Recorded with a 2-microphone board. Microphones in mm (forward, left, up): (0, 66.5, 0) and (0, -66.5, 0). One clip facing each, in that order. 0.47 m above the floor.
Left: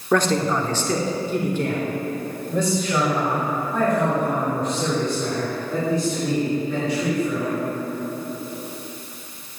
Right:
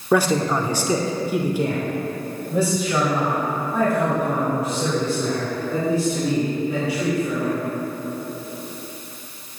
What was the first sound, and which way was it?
A man speaking, 10° right (ahead or behind).